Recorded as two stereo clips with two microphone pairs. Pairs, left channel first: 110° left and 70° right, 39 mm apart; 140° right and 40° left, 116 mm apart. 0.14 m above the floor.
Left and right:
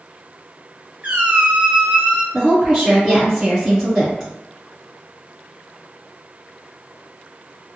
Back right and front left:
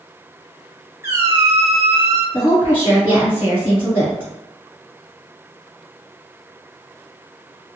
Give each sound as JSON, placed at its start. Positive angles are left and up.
{"t": 1.0, "sound": "a squeak", "azimuth_deg": -30, "distance_m": 0.5}
{"t": 2.3, "sound": "a woman speaking", "azimuth_deg": -25, "distance_m": 1.4}